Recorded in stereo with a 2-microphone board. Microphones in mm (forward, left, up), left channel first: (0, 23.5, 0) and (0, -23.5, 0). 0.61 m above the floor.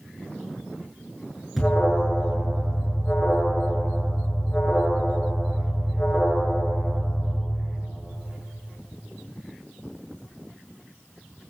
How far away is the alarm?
About 7 m.